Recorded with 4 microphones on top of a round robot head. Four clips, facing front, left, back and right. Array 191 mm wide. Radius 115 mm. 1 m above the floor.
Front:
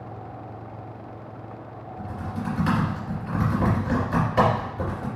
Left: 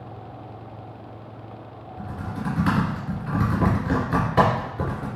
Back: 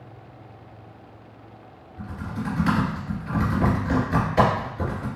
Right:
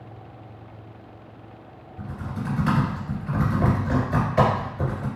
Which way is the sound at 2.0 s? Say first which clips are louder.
Left 1 dB, even; 80° left.